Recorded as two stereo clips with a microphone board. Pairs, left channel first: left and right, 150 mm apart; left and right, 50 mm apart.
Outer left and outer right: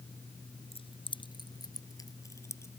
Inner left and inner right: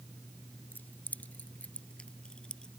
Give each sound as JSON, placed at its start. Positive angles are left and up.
{"t": 0.7, "sound": "keys jangling", "side_deg": 40}